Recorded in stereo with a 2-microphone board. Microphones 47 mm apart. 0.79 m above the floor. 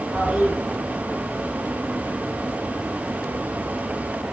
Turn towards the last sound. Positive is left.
turn(degrees=-25)  # may be behind; listen again after turning